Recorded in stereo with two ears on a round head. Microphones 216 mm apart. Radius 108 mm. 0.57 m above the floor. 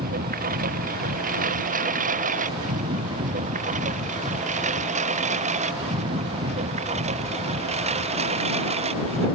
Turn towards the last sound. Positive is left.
turn(degrees=-25)  # may be behind; listen again after turning